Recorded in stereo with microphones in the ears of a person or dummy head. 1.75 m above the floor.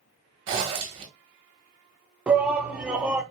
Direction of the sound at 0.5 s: 25° right (ahead or behind).